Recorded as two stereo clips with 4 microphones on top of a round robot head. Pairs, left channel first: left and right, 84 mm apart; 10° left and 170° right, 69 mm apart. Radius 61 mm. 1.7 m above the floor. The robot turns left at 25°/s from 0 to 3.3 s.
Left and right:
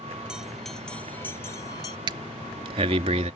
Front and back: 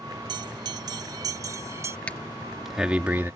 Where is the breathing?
70° right; by 3.3 s 100° right.